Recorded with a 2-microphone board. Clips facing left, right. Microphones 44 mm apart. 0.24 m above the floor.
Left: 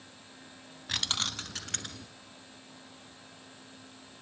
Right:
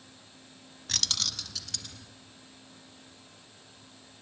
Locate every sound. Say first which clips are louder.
0.9 s keys jangling: left 1 dB; 15° left (ahead or behind), 0.9 m; by 2.1 s 50° left (ahead or behind), 2 m